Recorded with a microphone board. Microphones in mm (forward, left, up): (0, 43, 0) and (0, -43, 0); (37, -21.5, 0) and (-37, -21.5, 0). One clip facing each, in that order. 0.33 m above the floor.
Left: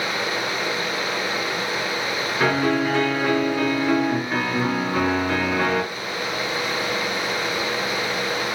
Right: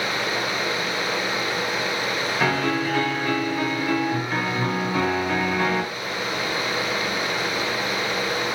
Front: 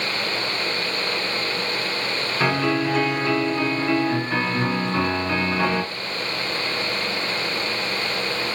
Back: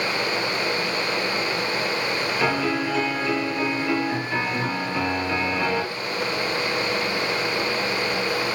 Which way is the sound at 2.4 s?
30° left.